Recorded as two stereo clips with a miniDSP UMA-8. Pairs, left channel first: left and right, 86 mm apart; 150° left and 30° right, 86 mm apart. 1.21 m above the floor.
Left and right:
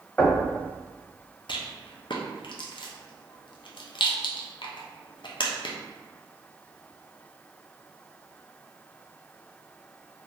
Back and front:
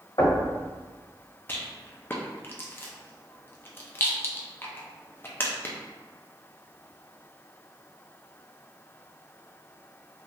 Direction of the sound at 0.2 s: 170° left.